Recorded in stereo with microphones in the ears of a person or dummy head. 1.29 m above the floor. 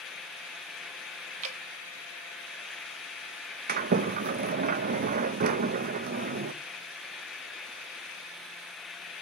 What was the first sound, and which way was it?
Dripping, 35° right (ahead or behind).